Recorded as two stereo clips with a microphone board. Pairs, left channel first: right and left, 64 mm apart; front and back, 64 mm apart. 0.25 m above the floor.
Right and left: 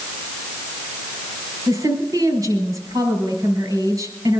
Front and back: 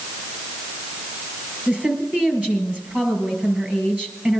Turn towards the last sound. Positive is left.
turn(degrees=115)